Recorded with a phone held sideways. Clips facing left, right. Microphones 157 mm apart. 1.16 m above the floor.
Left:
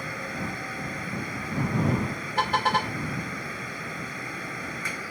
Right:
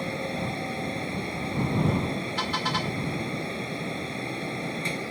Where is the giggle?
I don't hear a giggle.